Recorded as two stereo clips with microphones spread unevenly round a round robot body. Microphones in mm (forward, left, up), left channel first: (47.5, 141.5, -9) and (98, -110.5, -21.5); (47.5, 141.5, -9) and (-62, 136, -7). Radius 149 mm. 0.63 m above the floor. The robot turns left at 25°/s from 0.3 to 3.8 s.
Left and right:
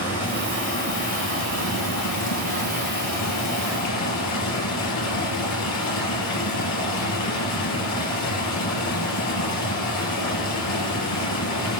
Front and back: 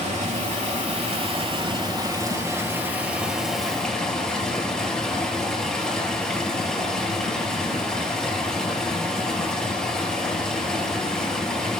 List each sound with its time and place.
0.0 s running water: 175° left, 4 m; by 11.8 s 85° left, 4 m